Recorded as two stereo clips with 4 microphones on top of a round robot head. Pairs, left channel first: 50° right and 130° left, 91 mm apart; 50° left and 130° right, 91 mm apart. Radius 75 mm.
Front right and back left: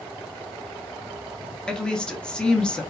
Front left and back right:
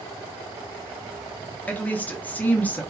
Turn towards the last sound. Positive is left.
turn(degrees=15)